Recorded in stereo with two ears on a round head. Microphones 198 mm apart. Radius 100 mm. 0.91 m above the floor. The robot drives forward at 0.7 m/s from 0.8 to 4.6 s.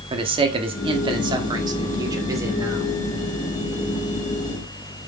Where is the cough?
No cough in this recording.